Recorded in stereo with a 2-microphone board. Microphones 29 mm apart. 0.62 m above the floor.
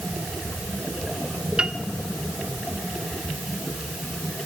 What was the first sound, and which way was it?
A piano, 30° right (ahead or behind).